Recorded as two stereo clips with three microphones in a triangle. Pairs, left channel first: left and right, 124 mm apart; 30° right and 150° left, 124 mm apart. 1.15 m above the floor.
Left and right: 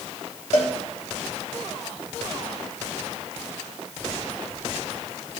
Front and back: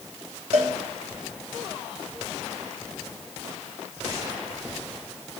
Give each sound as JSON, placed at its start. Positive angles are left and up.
{"t": 0.5, "sound": "a cowbell", "azimuth_deg": 115, "distance_m": 1.6}